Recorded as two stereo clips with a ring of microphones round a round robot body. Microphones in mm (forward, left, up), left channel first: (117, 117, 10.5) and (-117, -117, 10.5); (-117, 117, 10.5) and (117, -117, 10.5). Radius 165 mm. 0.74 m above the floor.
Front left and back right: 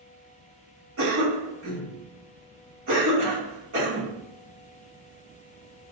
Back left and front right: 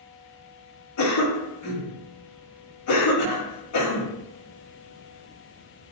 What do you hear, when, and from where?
1.0 s a cough: 175° left, 2 m